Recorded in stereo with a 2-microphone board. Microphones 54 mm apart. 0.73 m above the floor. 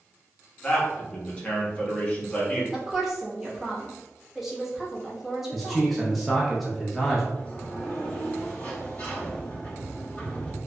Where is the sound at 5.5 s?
Centre (ahead or behind), 0.6 m.